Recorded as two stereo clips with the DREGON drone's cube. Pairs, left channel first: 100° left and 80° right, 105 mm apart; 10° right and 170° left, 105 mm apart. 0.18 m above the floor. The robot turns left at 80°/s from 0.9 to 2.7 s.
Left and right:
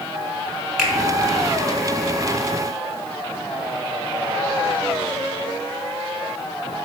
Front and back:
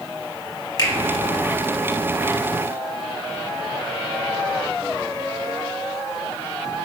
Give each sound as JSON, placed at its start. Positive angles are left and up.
{"t": 0.8, "sound": "a finger snap", "azimuth_deg": 5, "distance_m": 1.0}